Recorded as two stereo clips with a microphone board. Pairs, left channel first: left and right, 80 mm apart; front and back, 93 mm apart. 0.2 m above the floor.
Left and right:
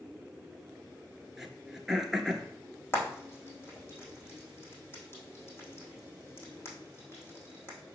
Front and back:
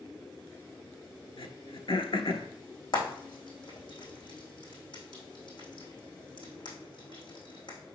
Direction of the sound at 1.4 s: 5° right.